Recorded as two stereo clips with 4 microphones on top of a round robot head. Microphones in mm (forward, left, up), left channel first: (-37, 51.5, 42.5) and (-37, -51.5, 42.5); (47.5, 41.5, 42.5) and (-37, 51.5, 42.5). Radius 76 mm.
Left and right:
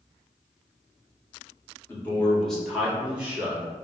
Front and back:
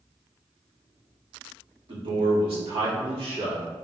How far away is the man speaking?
About 1.6 m.